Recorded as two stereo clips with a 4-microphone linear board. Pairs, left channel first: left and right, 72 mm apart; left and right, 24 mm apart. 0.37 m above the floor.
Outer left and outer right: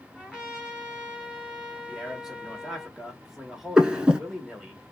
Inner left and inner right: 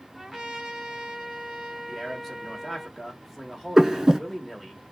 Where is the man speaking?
10° right (ahead or behind), 1.1 m.